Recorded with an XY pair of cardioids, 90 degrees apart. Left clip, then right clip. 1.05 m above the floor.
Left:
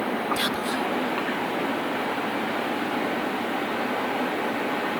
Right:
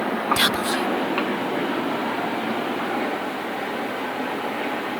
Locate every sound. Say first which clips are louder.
0.4 s whispering: right 5 dB; 60° right, 0.6 m